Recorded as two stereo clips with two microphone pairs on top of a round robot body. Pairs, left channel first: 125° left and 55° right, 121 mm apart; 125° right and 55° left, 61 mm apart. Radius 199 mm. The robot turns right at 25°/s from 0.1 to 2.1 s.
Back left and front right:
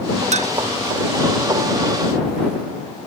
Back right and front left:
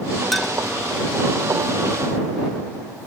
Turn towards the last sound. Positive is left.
turn(degrees=5)